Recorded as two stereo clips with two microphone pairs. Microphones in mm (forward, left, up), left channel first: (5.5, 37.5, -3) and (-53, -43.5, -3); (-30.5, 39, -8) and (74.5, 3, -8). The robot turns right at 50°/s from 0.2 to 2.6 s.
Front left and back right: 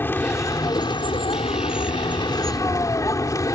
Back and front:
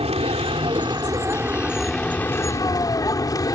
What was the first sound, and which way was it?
A vehicle, 10° right.